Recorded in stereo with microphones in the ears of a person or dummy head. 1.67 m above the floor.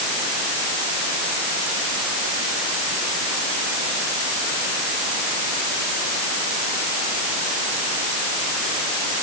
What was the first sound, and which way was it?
Only background noise.